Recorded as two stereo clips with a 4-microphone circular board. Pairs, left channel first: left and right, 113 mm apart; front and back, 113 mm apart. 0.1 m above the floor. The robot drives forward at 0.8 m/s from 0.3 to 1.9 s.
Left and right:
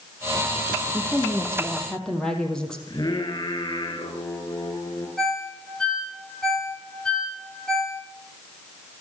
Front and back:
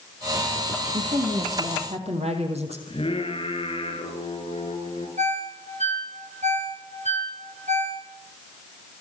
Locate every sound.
0.9 s a woman speaking: 170° left, 3.5 m; by 2.8 s 175° left, 4 m
2.9 s singing: 40° left, 7 m
5.2 s a ringtone: 175° left, 8 m